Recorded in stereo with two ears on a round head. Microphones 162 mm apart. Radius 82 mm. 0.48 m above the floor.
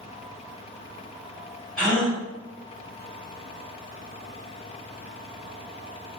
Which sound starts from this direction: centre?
A gasp, at 1.8 s.